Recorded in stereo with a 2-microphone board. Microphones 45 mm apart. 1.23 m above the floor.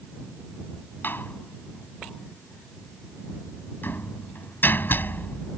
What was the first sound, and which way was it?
A door slam, 50° left (ahead or behind).